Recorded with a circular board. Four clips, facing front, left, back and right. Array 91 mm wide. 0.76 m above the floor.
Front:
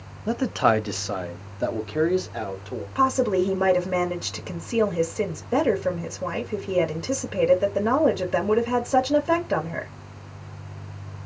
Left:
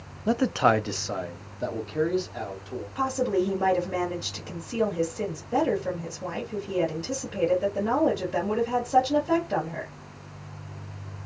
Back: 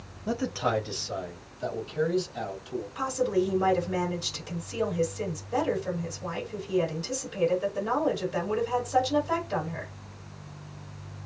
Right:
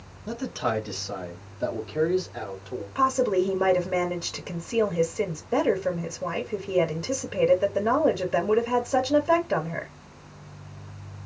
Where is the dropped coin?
No dropped coin in this recording.